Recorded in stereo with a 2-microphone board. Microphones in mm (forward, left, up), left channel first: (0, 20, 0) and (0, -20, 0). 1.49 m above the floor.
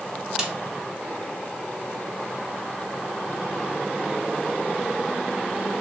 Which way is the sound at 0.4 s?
15° right (ahead or behind).